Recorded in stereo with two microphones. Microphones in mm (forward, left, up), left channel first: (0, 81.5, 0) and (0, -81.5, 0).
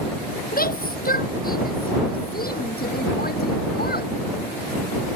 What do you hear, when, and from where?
0.5 s a shout: 60° left (ahead or behind); by 4.1 s 65° left (ahead or behind)